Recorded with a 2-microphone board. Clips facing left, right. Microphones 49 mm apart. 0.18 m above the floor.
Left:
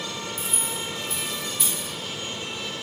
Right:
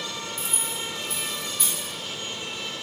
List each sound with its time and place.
0.4 s keys jangling: 5° left (ahead or behind), 2.5 m